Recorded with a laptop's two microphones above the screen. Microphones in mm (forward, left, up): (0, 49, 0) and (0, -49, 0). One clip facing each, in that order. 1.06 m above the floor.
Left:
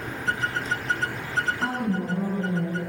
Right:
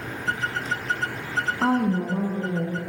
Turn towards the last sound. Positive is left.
turn(degrees=-75)  # may be behind; listen again after turning